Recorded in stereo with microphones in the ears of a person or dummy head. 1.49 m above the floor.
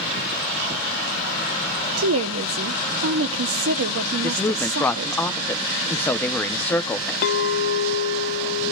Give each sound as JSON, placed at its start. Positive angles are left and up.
{"t": 2.0, "sound": "a woman speaking", "side_deg": -85, "distance_m": 0.9}
{"t": 4.2, "sound": "a woman speaking", "side_deg": 5, "distance_m": 0.8}
{"t": 7.2, "sound": "a clink", "side_deg": 45, "distance_m": 0.7}